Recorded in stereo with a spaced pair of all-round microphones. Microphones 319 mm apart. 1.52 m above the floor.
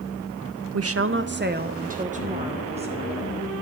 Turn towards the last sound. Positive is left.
turn(degrees=-15)  # may be behind; listen again after turning